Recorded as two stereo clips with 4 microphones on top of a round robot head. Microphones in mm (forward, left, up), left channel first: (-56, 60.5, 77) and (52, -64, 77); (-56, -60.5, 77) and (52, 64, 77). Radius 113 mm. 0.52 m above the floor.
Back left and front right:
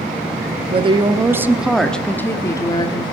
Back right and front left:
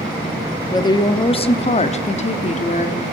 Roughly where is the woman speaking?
Right.